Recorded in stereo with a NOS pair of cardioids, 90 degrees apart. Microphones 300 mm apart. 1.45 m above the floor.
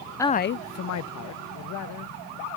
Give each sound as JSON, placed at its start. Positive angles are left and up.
{"t": 0.2, "sound": "a man speaking", "azimuth_deg": 10}